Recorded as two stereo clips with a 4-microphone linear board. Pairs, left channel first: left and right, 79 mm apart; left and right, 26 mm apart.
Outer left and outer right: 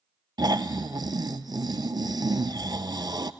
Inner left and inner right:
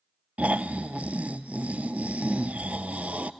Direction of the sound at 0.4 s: 65° right (ahead or behind).